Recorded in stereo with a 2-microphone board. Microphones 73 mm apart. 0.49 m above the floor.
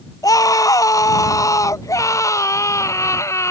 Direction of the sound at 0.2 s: 55° left (ahead or behind).